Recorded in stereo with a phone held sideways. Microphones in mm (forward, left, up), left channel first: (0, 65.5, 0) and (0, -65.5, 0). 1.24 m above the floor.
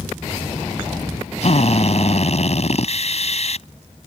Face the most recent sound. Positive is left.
turn(degrees=55)  # may be behind; listen again after turning